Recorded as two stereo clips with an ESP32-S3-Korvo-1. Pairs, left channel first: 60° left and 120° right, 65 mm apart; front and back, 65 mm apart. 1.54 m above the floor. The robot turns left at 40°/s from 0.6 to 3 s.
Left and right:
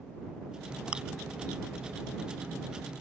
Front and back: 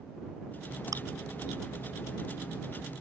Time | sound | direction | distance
0.9 | chewing | 170° left | ?